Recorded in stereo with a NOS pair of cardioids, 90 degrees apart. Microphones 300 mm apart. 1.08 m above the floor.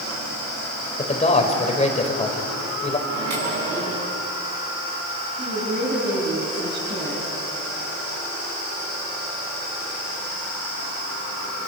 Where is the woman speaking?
30° right, 8 m.